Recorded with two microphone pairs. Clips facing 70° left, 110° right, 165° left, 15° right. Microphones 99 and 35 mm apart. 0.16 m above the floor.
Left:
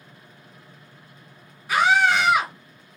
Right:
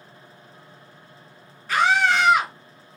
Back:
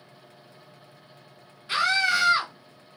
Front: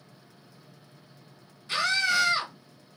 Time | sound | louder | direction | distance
1.7 | a scream | left 1 dB, back 3 dB | 135° left | 1.1 m